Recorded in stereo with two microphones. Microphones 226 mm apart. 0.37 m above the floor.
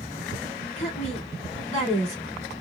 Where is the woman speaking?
30° left (ahead or behind), 3 m.